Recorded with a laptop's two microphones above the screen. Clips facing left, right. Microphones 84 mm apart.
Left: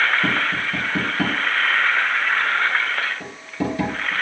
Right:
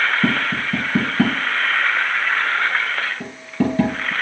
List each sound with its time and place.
0.2 s tapping: 30° right (ahead or behind), 4 m